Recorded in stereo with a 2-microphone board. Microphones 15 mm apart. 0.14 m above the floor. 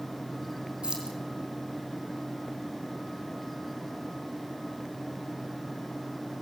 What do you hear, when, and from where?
0.8 s keys jangling: 80° right, 5.5 m